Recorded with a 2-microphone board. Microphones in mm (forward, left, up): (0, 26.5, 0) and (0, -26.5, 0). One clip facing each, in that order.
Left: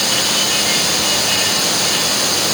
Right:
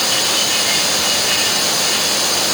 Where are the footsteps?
No footsteps in this recording.